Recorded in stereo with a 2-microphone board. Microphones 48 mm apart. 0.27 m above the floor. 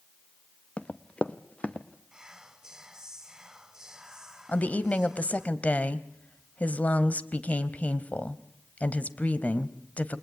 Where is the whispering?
15° right (ahead or behind), 1.1 m.